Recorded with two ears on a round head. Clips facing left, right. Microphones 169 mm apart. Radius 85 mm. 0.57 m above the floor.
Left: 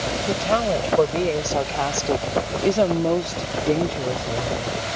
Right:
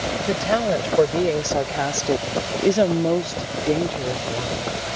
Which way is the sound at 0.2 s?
10° right (ahead or behind).